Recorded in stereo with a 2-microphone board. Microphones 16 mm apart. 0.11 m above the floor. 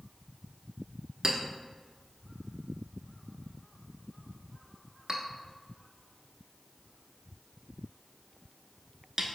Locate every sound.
1.2 s a clink: 35° right (ahead or behind), 0.7 m